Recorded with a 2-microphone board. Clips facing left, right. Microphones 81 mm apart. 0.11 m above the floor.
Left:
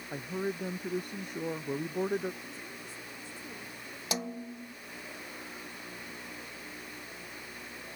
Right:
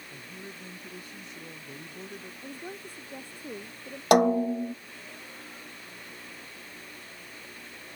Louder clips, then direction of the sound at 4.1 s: Right 18 dB; 60° right (ahead or behind).